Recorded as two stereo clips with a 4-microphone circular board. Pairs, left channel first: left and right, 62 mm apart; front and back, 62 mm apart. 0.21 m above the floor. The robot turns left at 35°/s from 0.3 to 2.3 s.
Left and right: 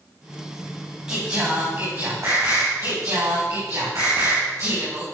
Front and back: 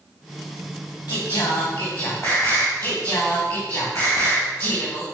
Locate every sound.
1.1 s singing: 10° right, 4.5 m; by 5.0 s 55° right, 4.5 m